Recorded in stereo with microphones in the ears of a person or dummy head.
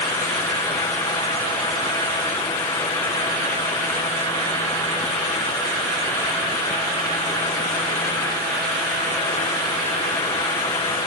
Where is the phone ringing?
I don't hear a phone ringing.